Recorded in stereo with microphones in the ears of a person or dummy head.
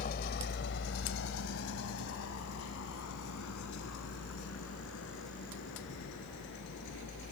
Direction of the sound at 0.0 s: 45° left (ahead or behind).